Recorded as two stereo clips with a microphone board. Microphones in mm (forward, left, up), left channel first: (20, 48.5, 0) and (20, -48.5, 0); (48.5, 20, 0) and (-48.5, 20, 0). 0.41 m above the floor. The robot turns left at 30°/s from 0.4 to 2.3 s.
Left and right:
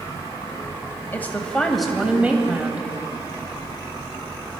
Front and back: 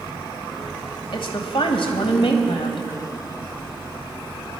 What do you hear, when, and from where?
1.1 s a woman speaking: 20° left, 1.9 m; by 2.9 s 15° right, 1.9 m